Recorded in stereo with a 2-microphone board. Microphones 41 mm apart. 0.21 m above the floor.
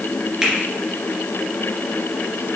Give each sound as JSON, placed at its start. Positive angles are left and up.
{"t": 0.4, "sound": "a finger snap", "side_deg": -15, "distance_m": 2.5}